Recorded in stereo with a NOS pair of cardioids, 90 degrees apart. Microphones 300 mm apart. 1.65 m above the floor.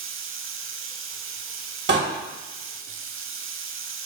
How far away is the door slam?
About 1.9 m.